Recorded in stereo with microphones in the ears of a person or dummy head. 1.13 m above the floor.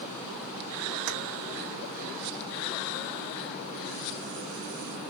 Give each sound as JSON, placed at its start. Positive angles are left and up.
{"t": 1.1, "sound": "keys jangling", "side_deg": -70, "distance_m": 1.0}